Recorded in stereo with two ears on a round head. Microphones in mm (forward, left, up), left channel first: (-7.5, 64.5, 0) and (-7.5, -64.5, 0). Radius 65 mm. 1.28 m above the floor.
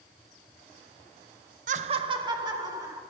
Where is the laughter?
60° right (ahead or behind), 0.5 m; by 3.0 s 25° right (ahead or behind), 2.5 m.